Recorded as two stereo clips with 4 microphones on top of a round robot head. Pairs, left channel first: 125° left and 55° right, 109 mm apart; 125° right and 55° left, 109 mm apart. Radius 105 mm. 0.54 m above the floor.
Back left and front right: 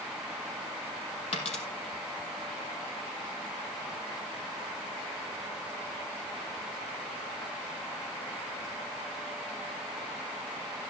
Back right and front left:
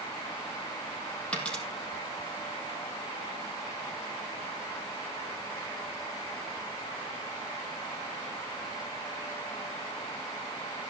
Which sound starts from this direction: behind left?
A dropped coin, at 1.3 s.